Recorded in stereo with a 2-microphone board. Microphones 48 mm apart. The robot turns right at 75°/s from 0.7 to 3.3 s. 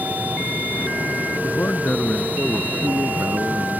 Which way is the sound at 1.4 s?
110° left.